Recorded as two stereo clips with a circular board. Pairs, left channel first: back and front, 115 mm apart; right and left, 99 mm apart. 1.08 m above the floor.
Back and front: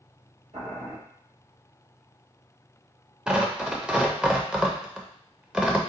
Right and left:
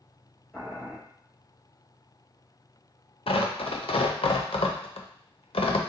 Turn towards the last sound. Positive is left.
turn(degrees=-80)